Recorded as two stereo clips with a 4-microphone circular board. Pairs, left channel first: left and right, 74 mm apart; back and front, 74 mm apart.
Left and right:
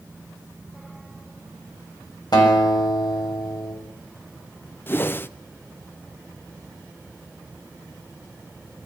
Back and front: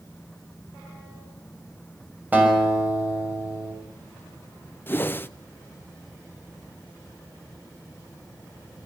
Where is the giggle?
No giggle in this recording.